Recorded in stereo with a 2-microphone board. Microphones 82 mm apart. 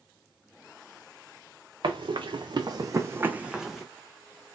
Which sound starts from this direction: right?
Running footsteps, at 1.8 s.